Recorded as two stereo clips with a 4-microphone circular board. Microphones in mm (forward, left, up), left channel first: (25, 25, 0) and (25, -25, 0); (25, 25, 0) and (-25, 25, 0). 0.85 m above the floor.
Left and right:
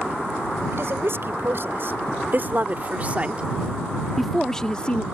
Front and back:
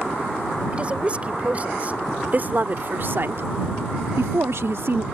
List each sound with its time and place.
0.7 s a woman speaking: 115° right; by 5.0 s 150° left